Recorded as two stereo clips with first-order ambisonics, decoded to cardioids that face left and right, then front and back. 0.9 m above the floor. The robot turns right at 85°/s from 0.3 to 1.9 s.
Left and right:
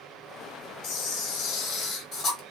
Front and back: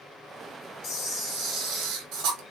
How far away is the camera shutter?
About 1.1 m.